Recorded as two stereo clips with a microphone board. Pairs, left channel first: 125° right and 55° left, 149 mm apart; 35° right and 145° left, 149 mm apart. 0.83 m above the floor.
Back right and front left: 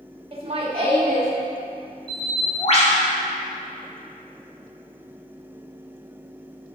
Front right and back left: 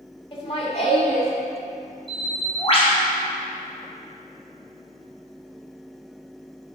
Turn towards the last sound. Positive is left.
turn(degrees=-80)